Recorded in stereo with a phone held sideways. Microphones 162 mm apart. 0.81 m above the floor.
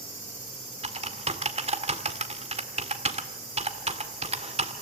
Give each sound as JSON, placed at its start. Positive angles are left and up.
{"t": 0.8, "sound": "typing on a keyboard", "side_deg": -40, "distance_m": 1.8}